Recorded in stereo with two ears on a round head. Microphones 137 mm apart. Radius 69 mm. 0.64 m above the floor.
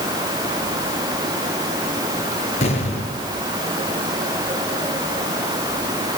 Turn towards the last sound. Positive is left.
turn(degrees=45)  # may be behind; listen again after turning